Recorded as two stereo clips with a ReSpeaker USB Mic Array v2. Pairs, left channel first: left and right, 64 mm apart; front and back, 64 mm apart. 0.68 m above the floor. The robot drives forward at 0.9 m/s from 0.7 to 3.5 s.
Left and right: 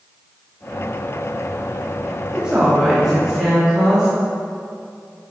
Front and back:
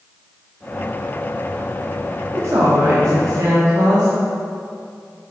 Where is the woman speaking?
160° right, 0.9 m; by 4.1 s 170° right, 1.8 m.